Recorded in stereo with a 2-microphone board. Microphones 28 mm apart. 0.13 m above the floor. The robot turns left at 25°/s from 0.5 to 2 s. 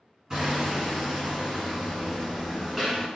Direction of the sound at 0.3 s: 10° right (ahead or behind).